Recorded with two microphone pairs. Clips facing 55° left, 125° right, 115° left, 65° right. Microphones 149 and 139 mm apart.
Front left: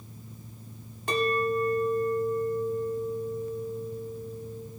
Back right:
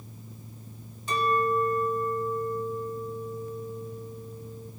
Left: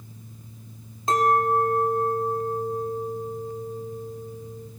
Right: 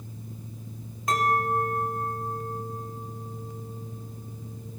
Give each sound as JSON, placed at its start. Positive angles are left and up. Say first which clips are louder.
{"t": 1.1, "sound": "a clink", "louder": "even, left 4 dB", "azimuth_deg": 55, "distance_m": 1.5}